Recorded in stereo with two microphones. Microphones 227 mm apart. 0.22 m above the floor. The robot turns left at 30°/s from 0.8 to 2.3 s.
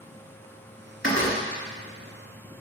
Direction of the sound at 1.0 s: 60° left (ahead or behind).